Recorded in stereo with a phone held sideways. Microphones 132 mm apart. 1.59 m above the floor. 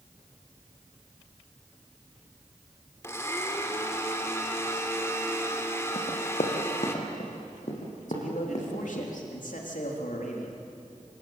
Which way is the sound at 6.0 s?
60° left (ahead or behind).